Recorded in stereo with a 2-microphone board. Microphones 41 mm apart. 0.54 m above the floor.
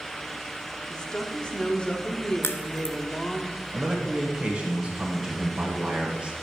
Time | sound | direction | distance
0.9 | a woman speaking | 25° left (ahead or behind) | 1.0 m
2.4 | a crack | 70° left (ahead or behind) | 0.7 m
3.7 | a man speaking | 30° right (ahead or behind) | 1.7 m